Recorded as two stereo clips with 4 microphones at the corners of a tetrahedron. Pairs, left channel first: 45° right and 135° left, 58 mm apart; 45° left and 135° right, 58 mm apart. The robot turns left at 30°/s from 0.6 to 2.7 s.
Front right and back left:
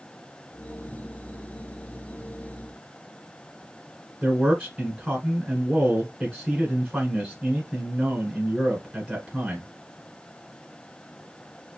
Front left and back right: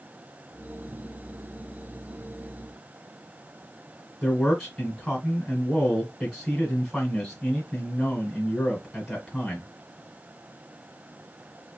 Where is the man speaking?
120° left, 1.7 m.